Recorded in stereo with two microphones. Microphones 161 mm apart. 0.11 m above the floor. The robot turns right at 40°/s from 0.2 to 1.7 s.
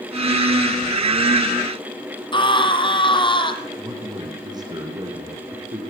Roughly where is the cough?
I don't hear a cough.